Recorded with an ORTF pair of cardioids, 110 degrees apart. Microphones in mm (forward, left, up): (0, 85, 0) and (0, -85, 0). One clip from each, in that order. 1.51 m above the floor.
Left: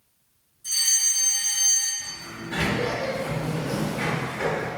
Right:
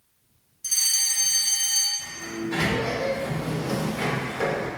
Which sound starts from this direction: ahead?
A sliding door, at 2.0 s.